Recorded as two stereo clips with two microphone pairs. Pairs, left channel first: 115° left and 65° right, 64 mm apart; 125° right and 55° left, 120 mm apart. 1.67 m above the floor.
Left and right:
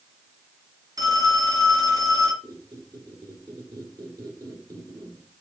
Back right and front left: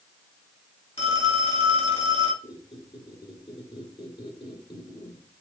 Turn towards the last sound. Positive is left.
turn(degrees=-80)